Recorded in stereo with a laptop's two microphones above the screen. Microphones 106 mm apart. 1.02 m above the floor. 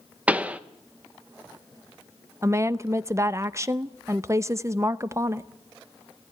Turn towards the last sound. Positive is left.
turn(degrees=-30)  # may be behind; listen again after turning